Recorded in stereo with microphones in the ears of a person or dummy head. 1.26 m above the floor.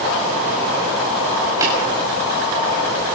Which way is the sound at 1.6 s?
20° right (ahead or behind).